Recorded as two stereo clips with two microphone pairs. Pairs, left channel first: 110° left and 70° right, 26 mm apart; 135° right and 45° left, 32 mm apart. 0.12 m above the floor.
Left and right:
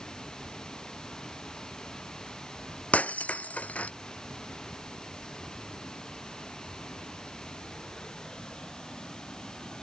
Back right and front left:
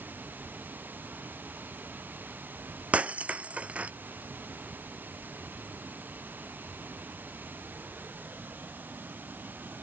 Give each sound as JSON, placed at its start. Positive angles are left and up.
{"t": 0.0, "sound": "running water", "azimuth_deg": 50}
{"t": 2.9, "sound": "breaking glass", "azimuth_deg": 90}